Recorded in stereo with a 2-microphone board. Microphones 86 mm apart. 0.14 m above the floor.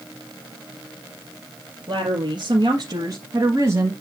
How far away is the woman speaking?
About 3 m.